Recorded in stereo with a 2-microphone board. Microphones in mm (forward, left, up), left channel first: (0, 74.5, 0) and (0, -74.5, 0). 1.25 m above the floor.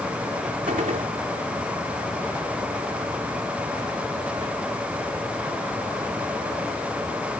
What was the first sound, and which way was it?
A gunshot, 60° right (ahead or behind).